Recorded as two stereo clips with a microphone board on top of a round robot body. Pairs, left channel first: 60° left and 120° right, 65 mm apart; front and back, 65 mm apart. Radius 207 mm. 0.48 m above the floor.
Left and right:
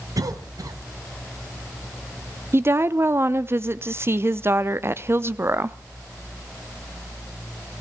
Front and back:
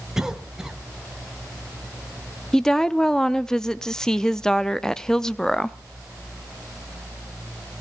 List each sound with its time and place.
0.2 s a cough: 100° right, 1.8 m
2.5 s a woman speaking: 80° right, 0.9 m